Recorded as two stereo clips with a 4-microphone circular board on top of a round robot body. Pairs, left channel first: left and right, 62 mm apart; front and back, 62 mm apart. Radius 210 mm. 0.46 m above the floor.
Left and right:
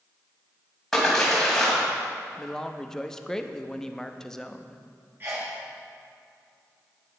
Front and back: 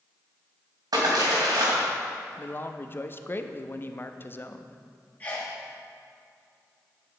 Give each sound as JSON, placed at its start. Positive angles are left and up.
{"t": 0.9, "sound": "a splash", "azimuth_deg": 175, "distance_m": 2.5}
{"t": 2.4, "sound": "a man speaking", "azimuth_deg": 15, "distance_m": 0.8}
{"t": 5.2, "sound": "a sneeze", "azimuth_deg": -55, "distance_m": 1.6}